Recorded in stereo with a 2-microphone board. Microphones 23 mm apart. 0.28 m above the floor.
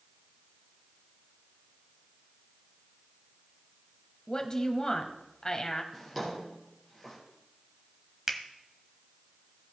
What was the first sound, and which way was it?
A woman speaking, 30° left (ahead or behind).